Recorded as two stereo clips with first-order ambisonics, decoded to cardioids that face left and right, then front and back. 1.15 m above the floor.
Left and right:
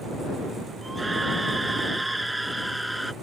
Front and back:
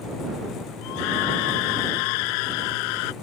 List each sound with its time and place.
0.8 s a scream: 10° right; by 3.1 s straight ahead